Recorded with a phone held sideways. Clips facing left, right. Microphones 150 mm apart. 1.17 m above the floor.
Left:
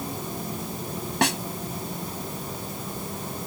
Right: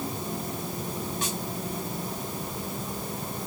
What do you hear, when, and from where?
1.2 s a snare drum: 80° left